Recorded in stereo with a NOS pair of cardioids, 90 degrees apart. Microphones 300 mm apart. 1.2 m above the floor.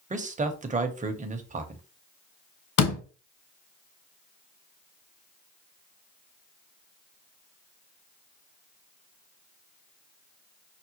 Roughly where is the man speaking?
Ahead right.